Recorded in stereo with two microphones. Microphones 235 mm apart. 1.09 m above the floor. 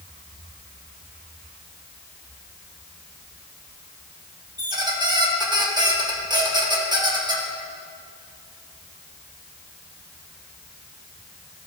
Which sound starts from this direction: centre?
A squeak, at 4.6 s.